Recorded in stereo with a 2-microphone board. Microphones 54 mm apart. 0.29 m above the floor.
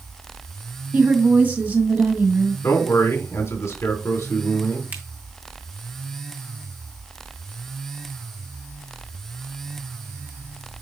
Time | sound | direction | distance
0.9 | a woman speaking | 35° right (ahead or behind) | 2 m
2.6 | a man speaking | 60° left (ahead or behind) | 2.5 m
4.9 | a finger snap | 30° right (ahead or behind) | 2.5 m